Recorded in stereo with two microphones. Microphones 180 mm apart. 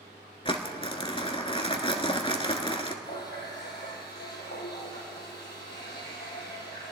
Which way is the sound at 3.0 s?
65° left (ahead or behind).